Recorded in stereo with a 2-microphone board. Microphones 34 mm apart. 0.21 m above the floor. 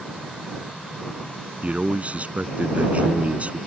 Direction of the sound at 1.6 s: 45° right (ahead or behind).